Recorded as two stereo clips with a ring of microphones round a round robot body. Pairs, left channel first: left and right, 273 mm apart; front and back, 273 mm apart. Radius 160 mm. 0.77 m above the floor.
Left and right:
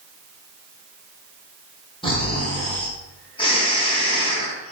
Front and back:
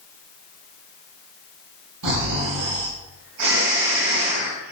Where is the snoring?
160° left, 4 m.